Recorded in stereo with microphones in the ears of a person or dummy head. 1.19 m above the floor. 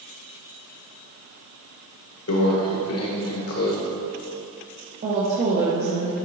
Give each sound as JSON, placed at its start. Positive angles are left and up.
{"t": 2.3, "sound": "a microwave", "side_deg": 75, "distance_m": 1.0}
{"t": 5.0, "sound": "a woman speaking", "side_deg": -40, "distance_m": 1.0}